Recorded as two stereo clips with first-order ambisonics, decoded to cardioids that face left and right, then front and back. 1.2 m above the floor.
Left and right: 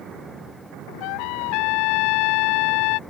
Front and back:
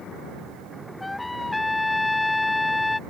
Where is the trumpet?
85° left.